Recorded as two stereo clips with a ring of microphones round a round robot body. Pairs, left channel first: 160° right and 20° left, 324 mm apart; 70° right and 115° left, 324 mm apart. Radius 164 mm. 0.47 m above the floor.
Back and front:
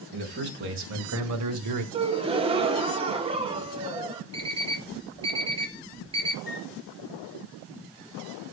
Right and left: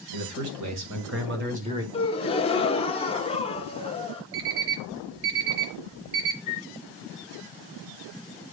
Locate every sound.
0.1 s a man speaking: 85° left, 3 m; by 1.8 s 30° left, 1.5 m
1.9 s a gasp: 20° right, 1.1 m
4.3 s an alarm clock: 95° left, 2 m
6.5 s a flute: 100° right, 1.0 m